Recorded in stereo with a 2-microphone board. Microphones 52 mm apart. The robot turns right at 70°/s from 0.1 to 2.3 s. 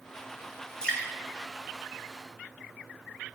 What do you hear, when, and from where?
0.8 s dripping: 15° left (ahead or behind), 5.5 m; by 1.1 s 35° left (ahead or behind), 5.5 m